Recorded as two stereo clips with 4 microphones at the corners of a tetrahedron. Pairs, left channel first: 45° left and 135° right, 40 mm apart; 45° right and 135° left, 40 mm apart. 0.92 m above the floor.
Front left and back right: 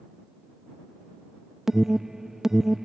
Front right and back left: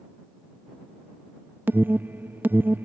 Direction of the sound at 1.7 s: 150° left.